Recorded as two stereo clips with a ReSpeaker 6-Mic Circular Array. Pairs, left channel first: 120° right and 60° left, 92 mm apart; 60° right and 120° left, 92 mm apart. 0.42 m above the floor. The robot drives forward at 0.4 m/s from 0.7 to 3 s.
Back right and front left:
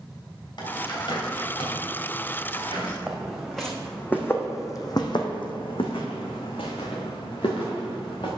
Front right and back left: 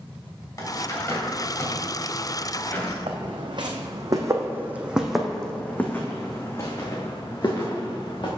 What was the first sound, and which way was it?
A bird, 105° right.